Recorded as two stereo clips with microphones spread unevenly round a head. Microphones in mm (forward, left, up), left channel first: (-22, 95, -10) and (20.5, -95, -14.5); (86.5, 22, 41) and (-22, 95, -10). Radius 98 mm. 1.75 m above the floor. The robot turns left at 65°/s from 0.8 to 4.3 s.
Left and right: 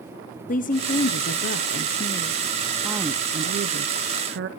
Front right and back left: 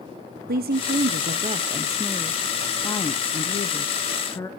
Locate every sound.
0.5 s a woman speaking: 140° left, 0.7 m; by 4.5 s 85° right, 0.7 m